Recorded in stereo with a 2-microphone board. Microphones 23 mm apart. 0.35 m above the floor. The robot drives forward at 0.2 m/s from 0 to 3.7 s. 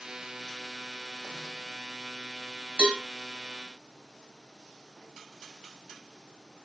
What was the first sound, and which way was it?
A cowbell, 50° right (ahead or behind).